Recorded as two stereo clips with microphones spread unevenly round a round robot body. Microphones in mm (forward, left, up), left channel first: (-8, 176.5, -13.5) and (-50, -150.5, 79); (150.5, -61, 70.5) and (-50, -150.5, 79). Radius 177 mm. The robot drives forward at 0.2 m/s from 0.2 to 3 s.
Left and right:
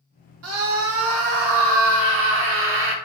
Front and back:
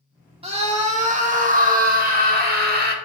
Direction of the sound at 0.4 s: 120° right.